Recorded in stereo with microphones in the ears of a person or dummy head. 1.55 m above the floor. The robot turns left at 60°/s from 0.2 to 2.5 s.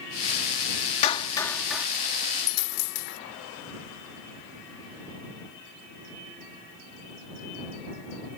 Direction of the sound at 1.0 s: 40° left (ahead or behind).